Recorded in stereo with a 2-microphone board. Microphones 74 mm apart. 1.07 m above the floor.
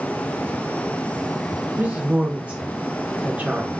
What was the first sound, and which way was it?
A woman speaking, 20° right (ahead or behind).